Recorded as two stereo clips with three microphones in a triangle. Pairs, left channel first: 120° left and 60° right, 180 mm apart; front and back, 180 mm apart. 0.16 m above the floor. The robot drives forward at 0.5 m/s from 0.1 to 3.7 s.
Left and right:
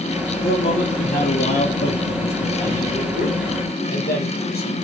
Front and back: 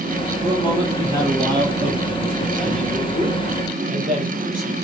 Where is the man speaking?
120° left, 3 m; by 4.8 s 140° left, 4 m.